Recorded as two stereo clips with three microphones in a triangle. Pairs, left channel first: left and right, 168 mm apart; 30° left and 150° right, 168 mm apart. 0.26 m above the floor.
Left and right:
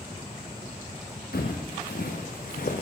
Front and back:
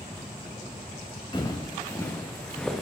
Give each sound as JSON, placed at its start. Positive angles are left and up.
{"t": 1.3, "sound": "footsteps", "azimuth_deg": 95, "distance_m": 1.9}